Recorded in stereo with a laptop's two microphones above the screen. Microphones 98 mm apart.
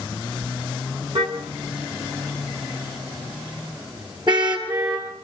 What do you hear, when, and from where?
1.1 s a car horn: 55° right (ahead or behind), 5.5 m; by 5.1 s 50° right (ahead or behind), 8 m